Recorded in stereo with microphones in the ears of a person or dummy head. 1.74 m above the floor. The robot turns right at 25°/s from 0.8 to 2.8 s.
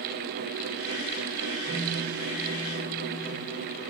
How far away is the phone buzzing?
About 4 m.